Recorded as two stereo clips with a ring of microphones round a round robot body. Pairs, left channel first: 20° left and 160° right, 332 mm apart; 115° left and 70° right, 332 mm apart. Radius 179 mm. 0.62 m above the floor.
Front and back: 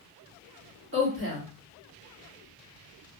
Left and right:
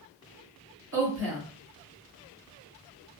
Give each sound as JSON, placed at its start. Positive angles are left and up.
{"t": 0.9, "sound": "a woman speaking", "azimuth_deg": -110, "distance_m": 1.6}